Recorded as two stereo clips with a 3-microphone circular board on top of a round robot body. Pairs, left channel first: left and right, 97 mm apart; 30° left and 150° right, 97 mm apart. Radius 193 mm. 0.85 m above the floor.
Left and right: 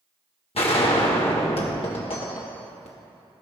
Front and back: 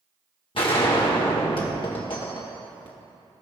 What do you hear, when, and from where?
0.6 s a gunshot: 65° left, 1.6 m